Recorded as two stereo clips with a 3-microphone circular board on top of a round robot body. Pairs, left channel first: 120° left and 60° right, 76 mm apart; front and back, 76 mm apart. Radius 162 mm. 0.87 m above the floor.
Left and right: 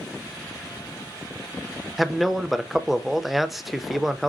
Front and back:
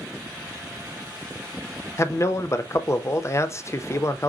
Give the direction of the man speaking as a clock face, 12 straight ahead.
11 o'clock.